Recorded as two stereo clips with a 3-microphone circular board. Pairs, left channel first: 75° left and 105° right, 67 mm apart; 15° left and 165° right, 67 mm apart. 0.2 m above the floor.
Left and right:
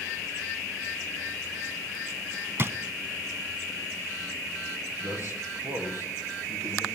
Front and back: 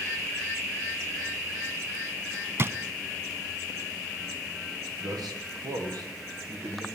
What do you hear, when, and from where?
2.6 s a drawer: 140° right, 0.8 m
5.0 s a man speaking: 155° right, 7.5 m